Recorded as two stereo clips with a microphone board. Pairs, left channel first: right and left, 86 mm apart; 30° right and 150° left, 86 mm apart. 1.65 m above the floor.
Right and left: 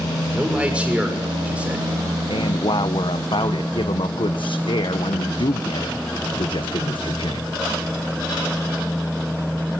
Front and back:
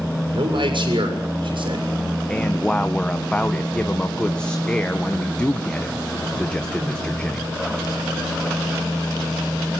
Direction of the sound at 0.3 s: 165° left.